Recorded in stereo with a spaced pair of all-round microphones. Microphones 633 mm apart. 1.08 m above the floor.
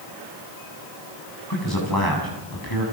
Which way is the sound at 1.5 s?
35° left (ahead or behind).